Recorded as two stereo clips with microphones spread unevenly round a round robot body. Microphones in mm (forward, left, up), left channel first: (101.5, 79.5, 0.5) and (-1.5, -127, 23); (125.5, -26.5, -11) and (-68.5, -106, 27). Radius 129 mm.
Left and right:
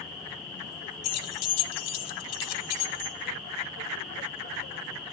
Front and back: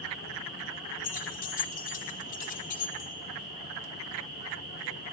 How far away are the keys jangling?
About 0.6 m.